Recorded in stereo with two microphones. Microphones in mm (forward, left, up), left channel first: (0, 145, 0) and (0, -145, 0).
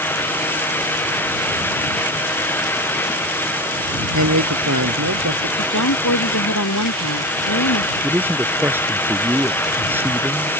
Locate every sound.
4.1 s a man speaking: 80° right
5.6 s a woman speaking: 85° left
8.0 s a man speaking: 5° right (ahead or behind)